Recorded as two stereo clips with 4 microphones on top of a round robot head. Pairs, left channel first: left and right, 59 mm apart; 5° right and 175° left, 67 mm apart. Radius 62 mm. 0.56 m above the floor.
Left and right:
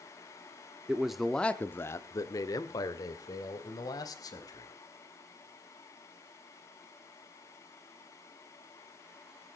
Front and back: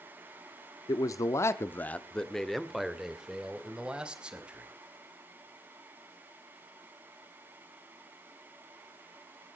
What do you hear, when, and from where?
0.9 s a man speaking: 20° right, 1.3 m; by 4.7 s 100° left, 4 m